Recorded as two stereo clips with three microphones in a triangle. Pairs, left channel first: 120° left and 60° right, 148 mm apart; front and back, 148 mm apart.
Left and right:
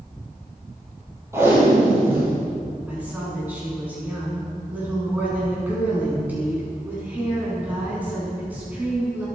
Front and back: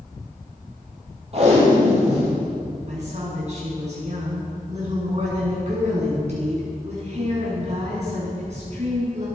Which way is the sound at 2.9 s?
140° right.